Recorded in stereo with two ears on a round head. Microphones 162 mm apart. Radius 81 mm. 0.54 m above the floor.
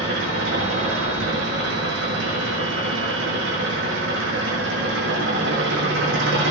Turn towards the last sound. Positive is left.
turn(degrees=-75)  # may be behind; listen again after turning